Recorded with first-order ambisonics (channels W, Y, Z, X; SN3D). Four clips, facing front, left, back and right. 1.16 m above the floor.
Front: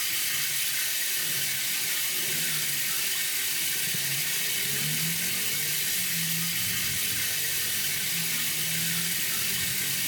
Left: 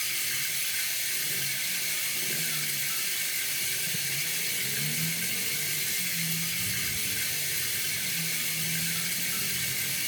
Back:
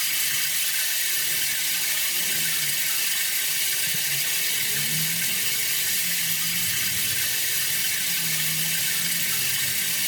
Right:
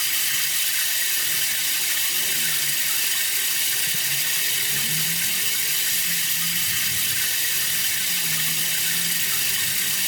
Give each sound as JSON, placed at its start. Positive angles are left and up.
{"t": 0.0, "sound": "running water", "azimuth_deg": -105, "distance_m": 1.0}